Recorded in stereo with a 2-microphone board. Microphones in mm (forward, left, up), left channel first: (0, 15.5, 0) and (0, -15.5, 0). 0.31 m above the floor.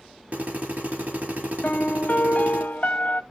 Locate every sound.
0.3 s a drill: 75° right (ahead or behind), 4 m
1.6 s a piano: 60° left (ahead or behind), 0.8 m